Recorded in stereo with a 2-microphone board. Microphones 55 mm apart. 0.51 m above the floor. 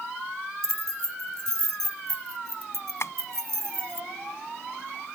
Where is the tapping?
55° left (ahead or behind).